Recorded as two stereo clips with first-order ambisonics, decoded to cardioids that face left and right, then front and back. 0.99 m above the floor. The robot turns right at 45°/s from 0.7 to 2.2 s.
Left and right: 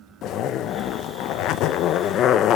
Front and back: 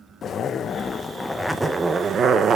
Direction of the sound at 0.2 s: 60° left.